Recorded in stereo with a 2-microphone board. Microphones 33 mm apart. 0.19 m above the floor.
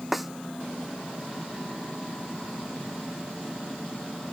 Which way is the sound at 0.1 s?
5° right (ahead or behind).